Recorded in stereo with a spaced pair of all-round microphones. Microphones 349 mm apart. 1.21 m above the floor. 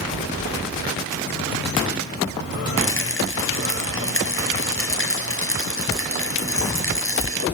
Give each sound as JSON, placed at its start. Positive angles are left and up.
{"t": 2.8, "sound": "a rattle", "side_deg": 35, "distance_m": 5.0}